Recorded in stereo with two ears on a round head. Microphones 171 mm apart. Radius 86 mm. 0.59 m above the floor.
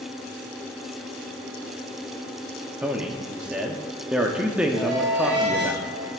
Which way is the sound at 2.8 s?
5° right (ahead or behind).